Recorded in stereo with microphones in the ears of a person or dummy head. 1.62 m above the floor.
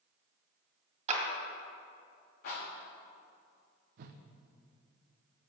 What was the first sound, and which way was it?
A clap, 35° right (ahead or behind).